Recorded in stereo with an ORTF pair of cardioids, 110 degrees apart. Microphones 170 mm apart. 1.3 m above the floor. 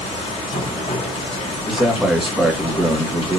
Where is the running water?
30° left, 1.5 m.